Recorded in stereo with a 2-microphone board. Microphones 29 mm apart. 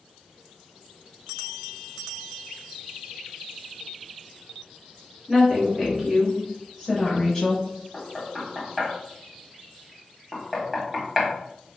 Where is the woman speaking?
25° right (ahead or behind), 1.5 m; by 7.7 s 25° left (ahead or behind), 1.2 m.